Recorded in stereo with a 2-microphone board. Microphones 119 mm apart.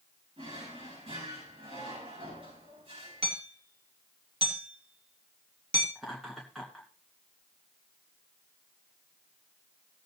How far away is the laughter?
About 2.5 m.